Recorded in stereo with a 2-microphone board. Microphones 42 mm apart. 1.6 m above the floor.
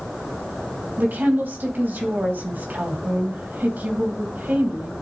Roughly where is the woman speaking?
Right.